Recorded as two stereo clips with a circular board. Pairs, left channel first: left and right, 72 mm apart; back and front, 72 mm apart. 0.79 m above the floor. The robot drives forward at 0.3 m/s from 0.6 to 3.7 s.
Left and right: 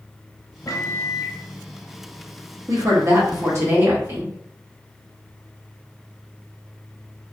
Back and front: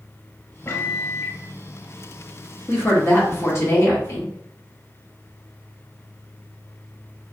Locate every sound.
0.7 s a microwave: 125° left, 0.6 m; by 1.4 s 140° left, 0.7 m
2.7 s a woman speaking: 120° right, 1.2 m; by 4.3 s 135° right, 1.4 m